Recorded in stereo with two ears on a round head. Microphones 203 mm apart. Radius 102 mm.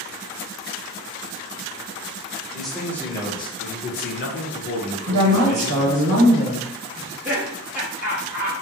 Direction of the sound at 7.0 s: 5° right (ahead or behind).